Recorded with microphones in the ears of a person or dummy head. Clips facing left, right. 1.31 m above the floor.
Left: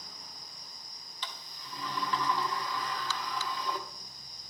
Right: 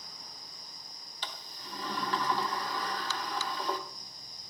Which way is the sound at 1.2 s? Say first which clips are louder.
Right 1 dB; 35° right (ahead or behind).